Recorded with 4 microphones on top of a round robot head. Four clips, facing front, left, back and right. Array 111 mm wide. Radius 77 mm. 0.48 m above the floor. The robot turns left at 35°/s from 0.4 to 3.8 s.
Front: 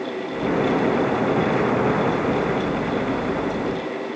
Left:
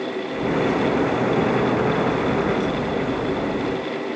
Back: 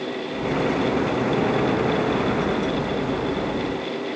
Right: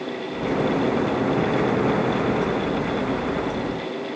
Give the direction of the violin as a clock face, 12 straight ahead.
No violin in this recording.